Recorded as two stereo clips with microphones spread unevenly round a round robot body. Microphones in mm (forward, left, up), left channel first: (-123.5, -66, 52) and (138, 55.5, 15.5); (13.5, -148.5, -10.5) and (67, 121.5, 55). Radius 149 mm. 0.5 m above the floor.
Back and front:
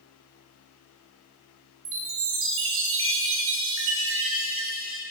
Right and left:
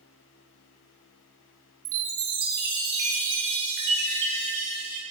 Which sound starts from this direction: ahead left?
A chime, at 1.9 s.